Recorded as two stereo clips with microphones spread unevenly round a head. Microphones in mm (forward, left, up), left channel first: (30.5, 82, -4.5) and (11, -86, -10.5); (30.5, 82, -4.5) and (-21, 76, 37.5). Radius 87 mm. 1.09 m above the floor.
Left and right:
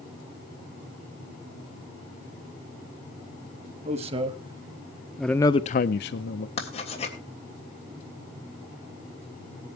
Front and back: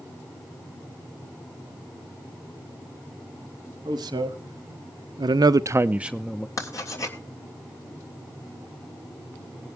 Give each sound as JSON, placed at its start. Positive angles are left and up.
{"t": 3.9, "sound": "a man speaking", "azimuth_deg": -155, "distance_m": 1.5}
{"t": 6.6, "sound": "writing", "azimuth_deg": 30, "distance_m": 3.0}